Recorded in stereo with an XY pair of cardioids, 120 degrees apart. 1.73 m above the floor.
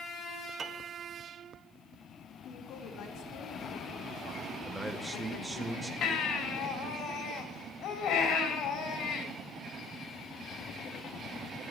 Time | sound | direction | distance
0.6 | a piano | 35° right | 1.4 m
2.5 | a woman speaking | 65° left | 3.5 m
4.6 | a man speaking | 10° right | 2 m
6.0 | a baby crying | 65° left | 4 m